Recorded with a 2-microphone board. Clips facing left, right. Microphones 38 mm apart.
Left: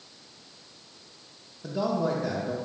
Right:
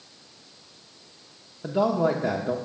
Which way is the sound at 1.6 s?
45° right (ahead or behind).